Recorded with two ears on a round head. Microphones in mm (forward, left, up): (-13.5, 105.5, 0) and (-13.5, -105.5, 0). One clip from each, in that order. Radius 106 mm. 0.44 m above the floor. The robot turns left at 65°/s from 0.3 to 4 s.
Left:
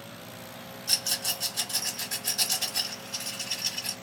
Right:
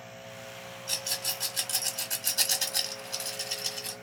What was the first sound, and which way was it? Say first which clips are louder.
A rattle: left 4 dB; 20° left (ahead or behind).